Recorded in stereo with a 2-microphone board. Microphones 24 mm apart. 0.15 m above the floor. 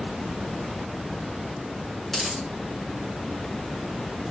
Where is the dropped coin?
10° left (ahead or behind), 4.5 m.